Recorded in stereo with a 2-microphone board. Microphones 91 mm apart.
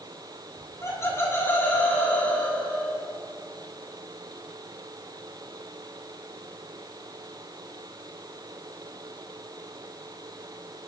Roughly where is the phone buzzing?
I don't hear a phone buzzing.